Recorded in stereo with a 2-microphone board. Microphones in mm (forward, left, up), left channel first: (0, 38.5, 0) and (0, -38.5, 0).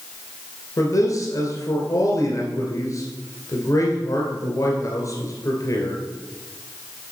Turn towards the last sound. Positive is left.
turn(degrees=40)  # may be behind; listen again after turning